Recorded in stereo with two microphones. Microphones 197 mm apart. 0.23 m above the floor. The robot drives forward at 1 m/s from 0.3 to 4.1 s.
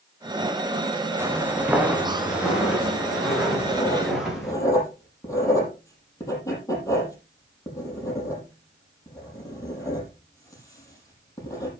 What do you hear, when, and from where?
1.2 s footsteps: 10° right (ahead or behind), 3.5 m; by 4.5 s centre (ahead or behind), 9.5 m
3.5 s writing: 20° left (ahead or behind), 5 m; by 11.7 s 15° left (ahead or behind), 5.5 m